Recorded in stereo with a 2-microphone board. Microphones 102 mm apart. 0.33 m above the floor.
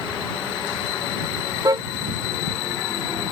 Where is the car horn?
35° right (ahead or behind).